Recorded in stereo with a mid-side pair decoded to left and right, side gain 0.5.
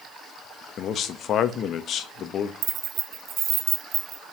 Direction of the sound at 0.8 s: 60° left.